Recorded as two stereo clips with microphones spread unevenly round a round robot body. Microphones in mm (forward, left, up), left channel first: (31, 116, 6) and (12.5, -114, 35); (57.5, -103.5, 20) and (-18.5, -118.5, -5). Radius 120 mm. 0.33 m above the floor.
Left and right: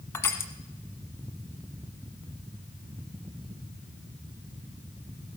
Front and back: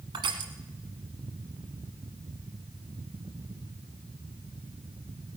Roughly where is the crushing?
Behind.